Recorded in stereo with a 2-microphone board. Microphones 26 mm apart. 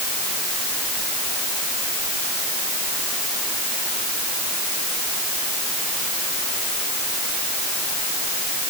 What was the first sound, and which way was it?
Only background noise.